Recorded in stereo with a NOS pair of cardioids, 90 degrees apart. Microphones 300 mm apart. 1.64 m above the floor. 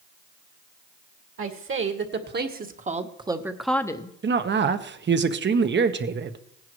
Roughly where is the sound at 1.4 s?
Ahead right.